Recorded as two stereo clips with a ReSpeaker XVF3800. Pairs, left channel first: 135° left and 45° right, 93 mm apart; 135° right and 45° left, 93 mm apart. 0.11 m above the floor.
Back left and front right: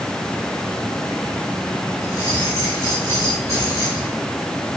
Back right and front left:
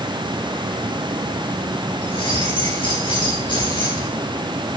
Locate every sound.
2.0 s keys jangling: 100° right, 7 m